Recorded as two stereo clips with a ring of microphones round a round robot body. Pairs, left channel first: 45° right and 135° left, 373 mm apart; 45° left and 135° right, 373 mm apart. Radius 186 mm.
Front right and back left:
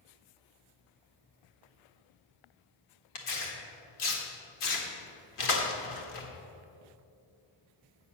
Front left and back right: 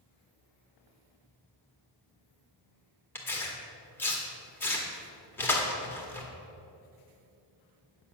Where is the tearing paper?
40° right, 1.6 m.